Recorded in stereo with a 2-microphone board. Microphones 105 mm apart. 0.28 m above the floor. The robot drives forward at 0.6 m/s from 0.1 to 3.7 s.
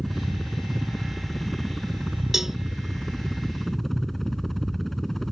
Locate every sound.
0.0 s a helicopter: centre (ahead or behind)
2.3 s a cowbell: 5° right (ahead or behind)